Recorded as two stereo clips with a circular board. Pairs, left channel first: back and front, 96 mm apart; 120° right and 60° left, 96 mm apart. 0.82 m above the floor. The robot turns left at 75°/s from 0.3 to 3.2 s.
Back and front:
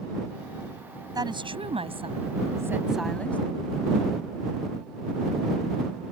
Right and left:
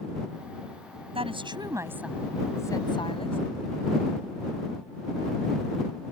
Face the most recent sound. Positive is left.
turn(degrees=-105)